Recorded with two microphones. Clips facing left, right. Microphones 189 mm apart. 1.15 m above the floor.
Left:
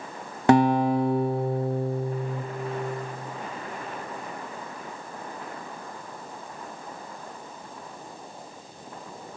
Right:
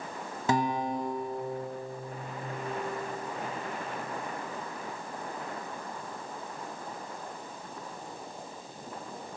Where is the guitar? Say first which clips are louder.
Left 10 dB; 70° left (ahead or behind), 0.7 m.